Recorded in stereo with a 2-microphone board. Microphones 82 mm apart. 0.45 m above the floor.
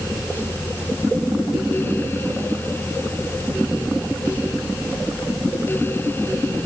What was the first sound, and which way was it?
Only background noise.